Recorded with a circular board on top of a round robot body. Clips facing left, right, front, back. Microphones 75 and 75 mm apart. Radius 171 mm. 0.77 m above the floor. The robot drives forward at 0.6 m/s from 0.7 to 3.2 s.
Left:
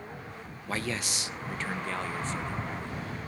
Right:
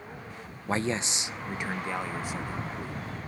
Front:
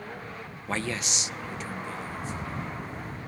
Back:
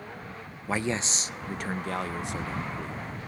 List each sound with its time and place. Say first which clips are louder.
0.7 s a man speaking: right 4 dB, back 2 dB; 105° right, 0.6 m; by 3.0 s 170° right, 1.6 m